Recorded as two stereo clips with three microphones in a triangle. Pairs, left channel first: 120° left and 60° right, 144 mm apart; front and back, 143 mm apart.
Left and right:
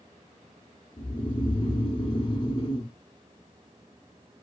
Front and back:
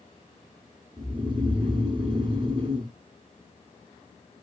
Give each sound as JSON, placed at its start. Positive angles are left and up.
{"t": 1.0, "sound": "snoring", "azimuth_deg": 150, "distance_m": 0.7}